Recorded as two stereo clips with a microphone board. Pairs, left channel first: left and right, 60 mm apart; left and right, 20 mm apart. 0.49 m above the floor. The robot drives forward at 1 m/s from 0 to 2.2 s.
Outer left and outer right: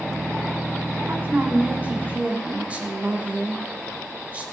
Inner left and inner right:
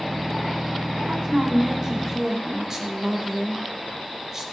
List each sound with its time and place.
1.1 s a woman speaking: 35° right (ahead or behind), 1.9 m; by 4.4 s 20° right (ahead or behind), 2.5 m